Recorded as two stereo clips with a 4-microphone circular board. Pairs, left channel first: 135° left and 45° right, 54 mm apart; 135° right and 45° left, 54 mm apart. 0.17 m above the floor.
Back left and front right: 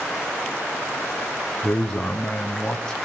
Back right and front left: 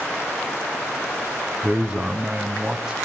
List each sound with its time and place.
1.6 s a man speaking: 95° left, 1.2 m